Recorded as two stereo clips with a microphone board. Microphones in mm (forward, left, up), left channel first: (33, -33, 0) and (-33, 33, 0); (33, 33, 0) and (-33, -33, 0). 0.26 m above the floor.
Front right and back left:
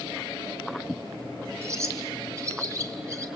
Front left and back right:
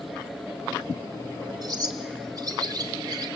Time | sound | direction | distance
1.6 | a bird | 170° right | 2 m